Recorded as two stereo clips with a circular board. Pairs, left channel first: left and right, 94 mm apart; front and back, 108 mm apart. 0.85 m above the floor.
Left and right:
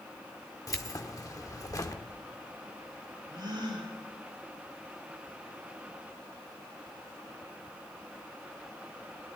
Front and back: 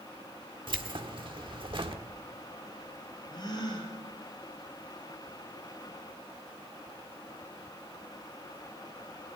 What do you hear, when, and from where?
0.7 s keys jangling: 140° left, 1.2 m
3.3 s a gasp: 50° right, 5 m